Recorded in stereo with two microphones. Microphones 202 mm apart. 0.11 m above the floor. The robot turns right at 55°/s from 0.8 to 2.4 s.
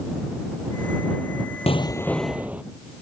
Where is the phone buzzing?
I don't hear a phone buzzing.